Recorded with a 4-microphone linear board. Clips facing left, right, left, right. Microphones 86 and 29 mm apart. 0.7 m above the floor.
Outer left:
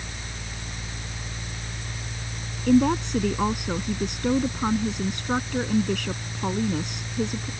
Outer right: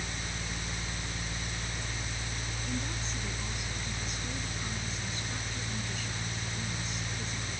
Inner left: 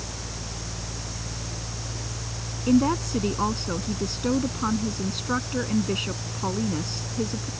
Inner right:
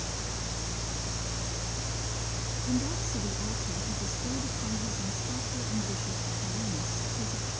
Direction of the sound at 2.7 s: 70° left (ahead or behind).